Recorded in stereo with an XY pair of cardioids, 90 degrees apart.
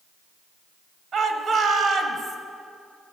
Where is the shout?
65° right, 1.5 m.